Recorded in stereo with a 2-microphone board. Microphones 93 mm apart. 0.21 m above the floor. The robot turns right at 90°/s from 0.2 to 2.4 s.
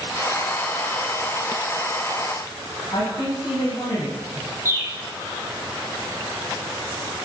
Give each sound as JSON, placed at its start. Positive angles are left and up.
{"t": 2.9, "sound": "a man speaking", "side_deg": 65, "distance_m": 6.5}
{"t": 4.7, "sound": "a bird", "side_deg": -30, "distance_m": 2.0}